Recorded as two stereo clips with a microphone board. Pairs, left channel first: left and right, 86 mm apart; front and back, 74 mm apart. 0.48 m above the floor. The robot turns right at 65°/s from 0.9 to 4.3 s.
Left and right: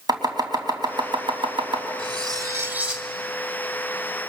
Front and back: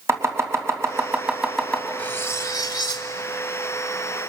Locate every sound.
0.1 s chopping: 130° right, 3 m; by 1.9 s 65° right, 3 m
2.0 s cutlery clinking: 70° right, 1.7 m; by 3.1 s straight ahead, 1.7 m